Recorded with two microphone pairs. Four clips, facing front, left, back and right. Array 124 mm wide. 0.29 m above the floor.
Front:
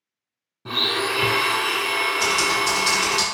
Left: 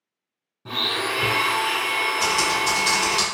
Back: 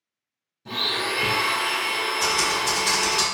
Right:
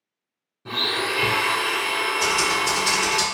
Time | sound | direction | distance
0.7 | a blender | 5° right | 0.7 m
2.2 | typing on a keyboard | 50° left | 2.0 m